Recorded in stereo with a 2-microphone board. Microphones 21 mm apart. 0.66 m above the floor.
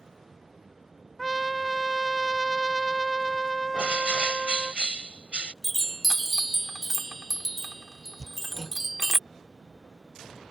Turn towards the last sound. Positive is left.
turn(degrees=-20)  # may be behind; listen again after turning